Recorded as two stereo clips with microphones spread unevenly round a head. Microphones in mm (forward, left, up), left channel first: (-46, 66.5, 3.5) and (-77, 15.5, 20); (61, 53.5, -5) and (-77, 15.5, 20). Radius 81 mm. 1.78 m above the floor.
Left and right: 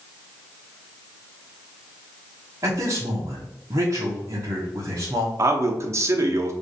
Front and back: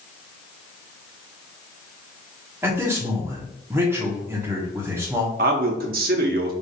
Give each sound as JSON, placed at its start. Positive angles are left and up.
{"t": 2.6, "sound": "a man speaking", "azimuth_deg": -95, "distance_m": 1.2}
{"t": 5.4, "sound": "a man speaking", "azimuth_deg": -145, "distance_m": 0.9}